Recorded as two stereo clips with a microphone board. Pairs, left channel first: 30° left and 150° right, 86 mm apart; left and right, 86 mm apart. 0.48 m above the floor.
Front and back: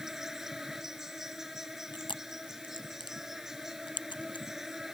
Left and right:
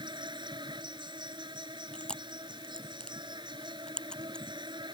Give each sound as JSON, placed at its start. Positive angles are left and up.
{"t": 0.0, "sound": "an insect", "azimuth_deg": -65}
{"t": 1.9, "sound": "chewing", "azimuth_deg": 10}